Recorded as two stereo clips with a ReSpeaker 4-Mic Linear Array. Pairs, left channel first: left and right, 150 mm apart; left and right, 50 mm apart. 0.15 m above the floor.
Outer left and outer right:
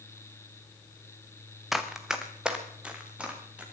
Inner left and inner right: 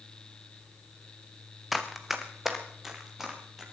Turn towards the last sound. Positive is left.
turn(degrees=-10)  # may be behind; listen again after turning